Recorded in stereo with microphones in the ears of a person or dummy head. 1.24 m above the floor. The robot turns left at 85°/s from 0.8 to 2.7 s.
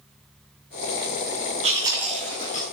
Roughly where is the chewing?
Right.